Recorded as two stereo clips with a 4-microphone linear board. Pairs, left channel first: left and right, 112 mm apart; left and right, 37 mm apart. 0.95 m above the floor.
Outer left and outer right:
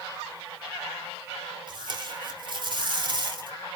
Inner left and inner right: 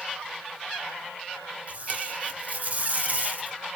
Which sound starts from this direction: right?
Tape being pulled, at 1.7 s.